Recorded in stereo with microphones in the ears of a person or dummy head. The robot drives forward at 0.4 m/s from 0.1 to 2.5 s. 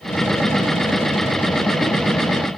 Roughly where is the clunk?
No clunk in this recording.